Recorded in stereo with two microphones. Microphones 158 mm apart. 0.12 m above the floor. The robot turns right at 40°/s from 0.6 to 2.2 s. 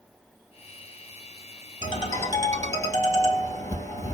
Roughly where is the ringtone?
Left.